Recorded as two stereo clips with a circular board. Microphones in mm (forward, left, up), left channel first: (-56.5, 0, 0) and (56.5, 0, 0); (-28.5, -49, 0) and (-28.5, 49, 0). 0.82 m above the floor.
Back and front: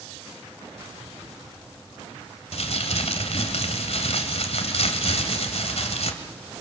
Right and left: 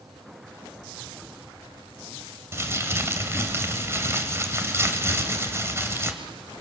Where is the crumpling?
155° left, 2.5 m.